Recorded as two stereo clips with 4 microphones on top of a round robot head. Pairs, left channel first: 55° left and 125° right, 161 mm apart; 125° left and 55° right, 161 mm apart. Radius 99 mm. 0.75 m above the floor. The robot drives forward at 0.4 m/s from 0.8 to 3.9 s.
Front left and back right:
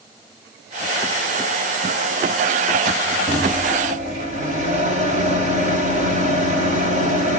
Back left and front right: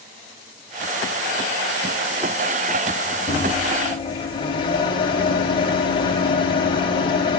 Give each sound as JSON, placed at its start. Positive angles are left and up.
{"t": 3.3, "sound": "a microwave", "azimuth_deg": -170, "distance_m": 3.5}